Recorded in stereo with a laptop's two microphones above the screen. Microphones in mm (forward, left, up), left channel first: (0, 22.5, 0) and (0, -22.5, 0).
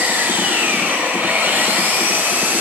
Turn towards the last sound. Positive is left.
turn(degrees=-45)  # may be behind; listen again after turning